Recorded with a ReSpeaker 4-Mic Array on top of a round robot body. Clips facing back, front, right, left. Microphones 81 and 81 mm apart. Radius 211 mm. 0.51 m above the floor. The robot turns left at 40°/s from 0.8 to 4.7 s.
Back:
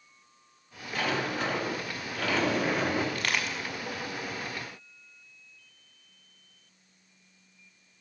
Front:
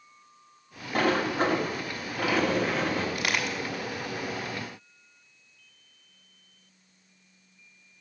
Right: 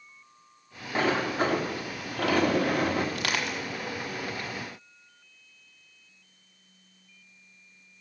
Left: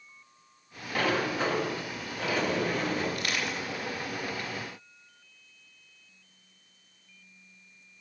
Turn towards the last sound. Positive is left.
turn(degrees=-140)